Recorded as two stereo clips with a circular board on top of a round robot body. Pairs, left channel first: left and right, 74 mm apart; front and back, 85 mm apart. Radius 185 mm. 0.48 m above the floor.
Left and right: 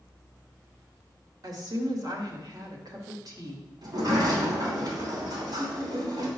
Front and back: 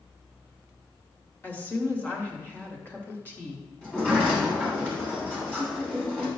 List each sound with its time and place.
1.4 s a woman speaking: 65° right, 1.8 m
3.8 s a sliding door: 75° right, 2.5 m